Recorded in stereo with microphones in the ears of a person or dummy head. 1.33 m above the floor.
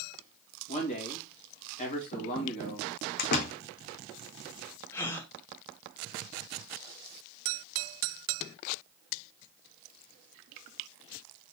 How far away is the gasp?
About 0.9 m.